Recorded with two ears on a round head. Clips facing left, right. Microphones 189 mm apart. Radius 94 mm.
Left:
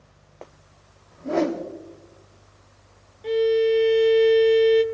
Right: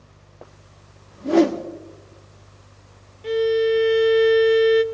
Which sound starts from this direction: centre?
A violin, at 3.2 s.